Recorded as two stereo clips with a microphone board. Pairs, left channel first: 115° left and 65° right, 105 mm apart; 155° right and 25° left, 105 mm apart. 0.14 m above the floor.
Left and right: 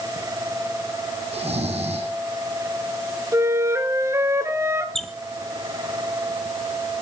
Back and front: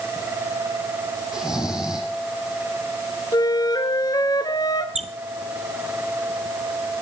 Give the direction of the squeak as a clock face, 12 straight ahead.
11 o'clock.